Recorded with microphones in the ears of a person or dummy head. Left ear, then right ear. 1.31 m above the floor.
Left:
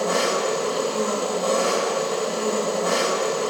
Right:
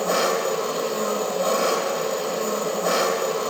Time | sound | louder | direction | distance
0.0 | an engine running | even | 35° right (ahead or behind) | 2 m